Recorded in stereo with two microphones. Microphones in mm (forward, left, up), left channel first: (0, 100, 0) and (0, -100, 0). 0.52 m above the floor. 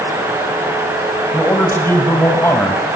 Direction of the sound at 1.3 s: 10° left (ahead or behind).